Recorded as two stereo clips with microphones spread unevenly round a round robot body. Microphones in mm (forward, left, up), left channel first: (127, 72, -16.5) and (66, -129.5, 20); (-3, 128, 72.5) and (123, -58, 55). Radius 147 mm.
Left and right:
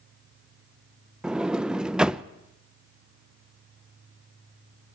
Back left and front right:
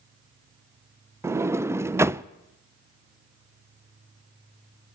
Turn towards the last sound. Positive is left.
turn(degrees=-5)